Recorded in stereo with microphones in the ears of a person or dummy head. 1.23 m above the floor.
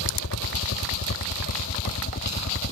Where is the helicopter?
70° left (ahead or behind); by 2.7 s 50° left (ahead or behind).